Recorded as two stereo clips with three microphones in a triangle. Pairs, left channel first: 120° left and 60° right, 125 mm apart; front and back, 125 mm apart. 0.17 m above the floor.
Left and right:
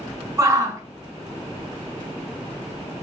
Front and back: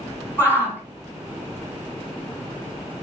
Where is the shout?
50° right, 1.4 m.